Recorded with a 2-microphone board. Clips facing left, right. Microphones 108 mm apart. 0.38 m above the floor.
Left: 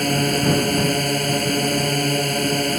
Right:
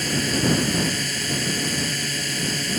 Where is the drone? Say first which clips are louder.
Left 4 dB; 50° left (ahead or behind).